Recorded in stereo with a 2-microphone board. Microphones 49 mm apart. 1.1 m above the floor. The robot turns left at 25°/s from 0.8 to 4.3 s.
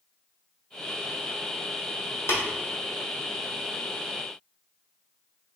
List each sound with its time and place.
2.3 s tapping: 60° left (ahead or behind), 1.5 m; by 2.4 s 65° left (ahead or behind), 1.5 m